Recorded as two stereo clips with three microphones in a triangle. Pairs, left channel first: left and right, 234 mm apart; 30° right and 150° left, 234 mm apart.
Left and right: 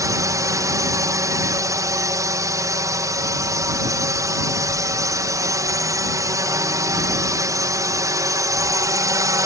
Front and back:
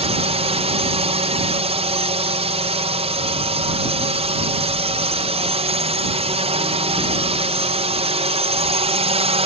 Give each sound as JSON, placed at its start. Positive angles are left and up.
{"t": 0.0, "sound": "a drone", "azimuth_deg": -160}